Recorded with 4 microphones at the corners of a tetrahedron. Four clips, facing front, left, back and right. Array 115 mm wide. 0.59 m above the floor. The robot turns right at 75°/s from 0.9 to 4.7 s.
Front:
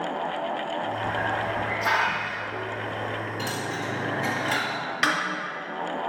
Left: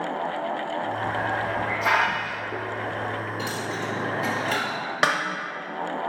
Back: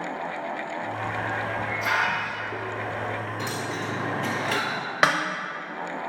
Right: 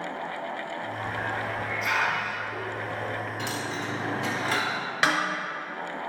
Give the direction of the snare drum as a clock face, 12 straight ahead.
7 o'clock.